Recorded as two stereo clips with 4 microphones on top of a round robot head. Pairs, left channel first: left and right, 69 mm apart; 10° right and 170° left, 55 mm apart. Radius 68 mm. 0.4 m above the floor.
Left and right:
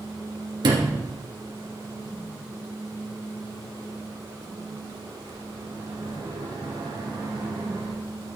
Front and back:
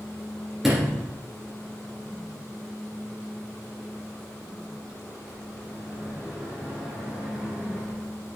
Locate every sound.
0.6 s a sliding door: 105° right, 2.5 m